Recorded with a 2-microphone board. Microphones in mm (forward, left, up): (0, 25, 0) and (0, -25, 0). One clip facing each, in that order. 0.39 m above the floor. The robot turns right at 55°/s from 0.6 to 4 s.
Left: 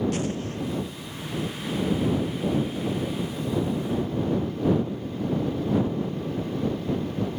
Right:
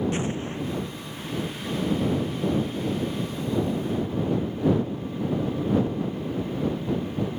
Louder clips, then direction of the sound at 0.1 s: Even; 25° right (ahead or behind).